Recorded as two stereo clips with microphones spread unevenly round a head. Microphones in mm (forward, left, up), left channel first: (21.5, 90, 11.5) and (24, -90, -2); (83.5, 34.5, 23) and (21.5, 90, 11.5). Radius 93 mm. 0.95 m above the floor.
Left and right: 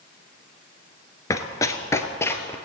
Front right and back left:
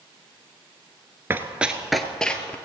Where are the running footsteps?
100° left, 0.9 m; by 2.5 s 20° left, 1.4 m.